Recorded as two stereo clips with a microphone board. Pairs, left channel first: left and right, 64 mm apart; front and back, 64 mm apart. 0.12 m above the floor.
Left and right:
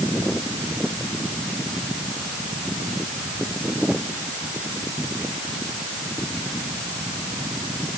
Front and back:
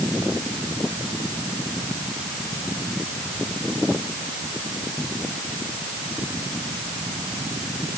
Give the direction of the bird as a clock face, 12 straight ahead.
No bird in this recording.